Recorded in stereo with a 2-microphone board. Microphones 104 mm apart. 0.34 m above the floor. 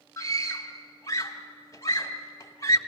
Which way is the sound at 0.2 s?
30° left (ahead or behind).